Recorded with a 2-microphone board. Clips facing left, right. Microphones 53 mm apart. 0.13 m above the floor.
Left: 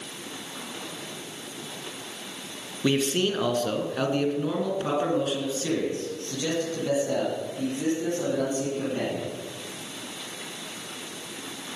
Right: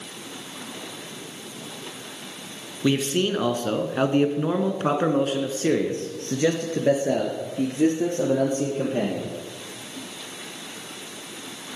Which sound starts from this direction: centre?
A man speaking, at 2.8 s.